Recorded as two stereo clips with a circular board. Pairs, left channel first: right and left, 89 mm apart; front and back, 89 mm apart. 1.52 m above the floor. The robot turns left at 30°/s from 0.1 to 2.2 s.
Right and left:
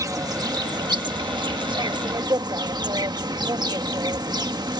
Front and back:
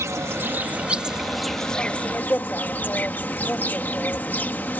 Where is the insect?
130° left; by 4.8 s 65° left.